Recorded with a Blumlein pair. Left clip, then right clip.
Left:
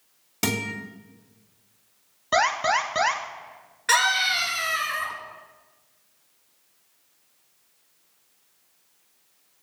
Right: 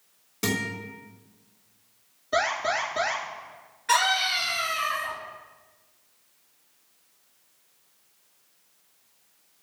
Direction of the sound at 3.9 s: 65° left.